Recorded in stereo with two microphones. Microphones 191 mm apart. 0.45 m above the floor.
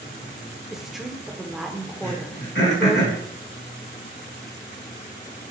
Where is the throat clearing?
75° left (ahead or behind), 2.5 m.